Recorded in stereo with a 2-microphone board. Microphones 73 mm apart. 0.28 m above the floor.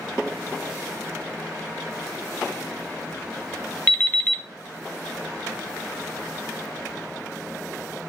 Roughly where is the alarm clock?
Left.